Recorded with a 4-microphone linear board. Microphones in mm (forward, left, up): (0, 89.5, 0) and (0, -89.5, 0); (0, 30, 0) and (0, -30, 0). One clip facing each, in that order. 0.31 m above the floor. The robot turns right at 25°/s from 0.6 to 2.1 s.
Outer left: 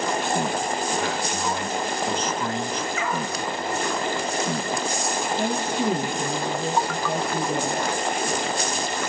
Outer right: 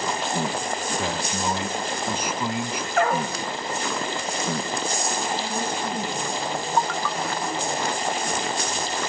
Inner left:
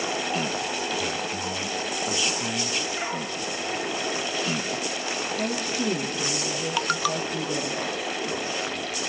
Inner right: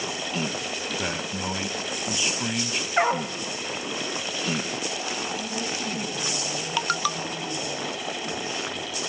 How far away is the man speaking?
About 2.5 m.